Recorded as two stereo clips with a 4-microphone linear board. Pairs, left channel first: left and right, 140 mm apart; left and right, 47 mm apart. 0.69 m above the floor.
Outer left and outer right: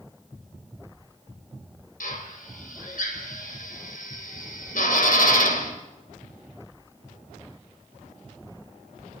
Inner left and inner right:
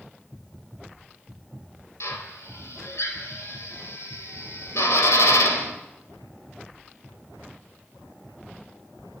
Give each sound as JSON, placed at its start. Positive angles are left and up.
{"t": 2.0, "sound": "a drill", "side_deg": 75, "distance_m": 3.5}